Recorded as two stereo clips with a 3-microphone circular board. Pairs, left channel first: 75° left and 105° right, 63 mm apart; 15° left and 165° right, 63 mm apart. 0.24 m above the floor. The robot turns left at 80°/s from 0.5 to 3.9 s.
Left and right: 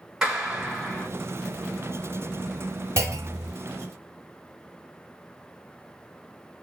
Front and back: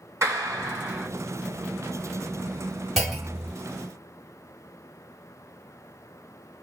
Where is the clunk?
70° right, 1.6 m; by 3.5 s 115° right, 1.6 m.